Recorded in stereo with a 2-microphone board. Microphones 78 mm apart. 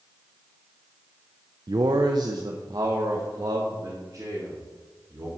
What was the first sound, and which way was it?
A man speaking, 60° right (ahead or behind).